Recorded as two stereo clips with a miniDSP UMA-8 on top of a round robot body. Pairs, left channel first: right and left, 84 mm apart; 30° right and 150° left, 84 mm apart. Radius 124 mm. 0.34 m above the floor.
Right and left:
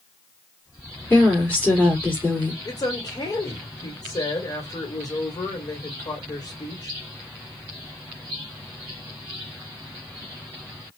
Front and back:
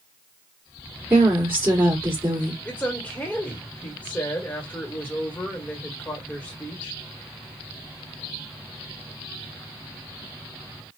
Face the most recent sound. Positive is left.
turn(degrees=-100)